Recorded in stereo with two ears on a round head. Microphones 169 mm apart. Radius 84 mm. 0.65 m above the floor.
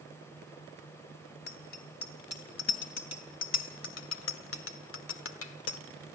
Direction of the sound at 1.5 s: 55° left (ahead or behind).